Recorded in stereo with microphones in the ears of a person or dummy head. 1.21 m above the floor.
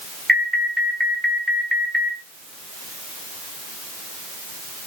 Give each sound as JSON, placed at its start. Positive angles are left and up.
{"t": 0.3, "sound": "an alarm", "side_deg": 0, "distance_m": 2.5}